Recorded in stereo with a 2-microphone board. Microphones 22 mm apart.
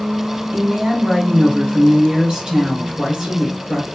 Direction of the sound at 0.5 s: 30° right (ahead or behind).